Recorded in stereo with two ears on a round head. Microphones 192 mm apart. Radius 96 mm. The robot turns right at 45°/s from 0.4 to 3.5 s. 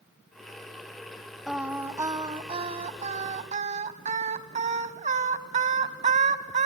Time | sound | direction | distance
1.5 | singing | 175° right | 0.8 m